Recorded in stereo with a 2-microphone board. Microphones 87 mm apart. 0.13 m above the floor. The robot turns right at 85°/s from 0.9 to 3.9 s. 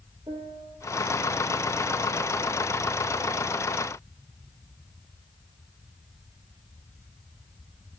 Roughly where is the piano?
Right.